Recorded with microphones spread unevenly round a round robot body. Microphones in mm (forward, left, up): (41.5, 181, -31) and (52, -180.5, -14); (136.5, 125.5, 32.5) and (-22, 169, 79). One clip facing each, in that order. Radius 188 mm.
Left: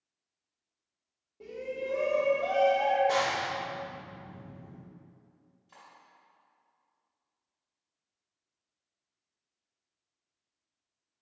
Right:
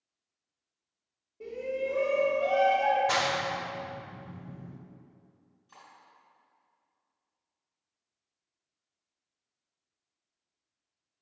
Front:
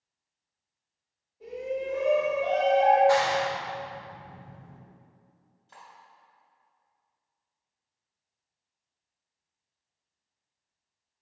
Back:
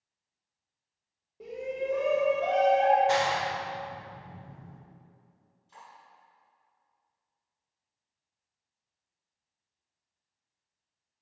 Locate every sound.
1.4 s a shout: 165° left, 1.3 m
3.1 s a clap: 120° right, 0.5 m
5.7 s cutlery clinking: 5° left, 2.5 m